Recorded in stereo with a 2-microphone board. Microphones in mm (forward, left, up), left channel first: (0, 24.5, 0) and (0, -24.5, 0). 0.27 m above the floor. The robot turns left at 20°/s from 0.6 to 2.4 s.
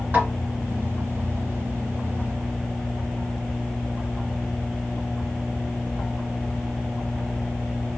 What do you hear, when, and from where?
0.1 s a snare drum: 35° right (ahead or behind), 2 m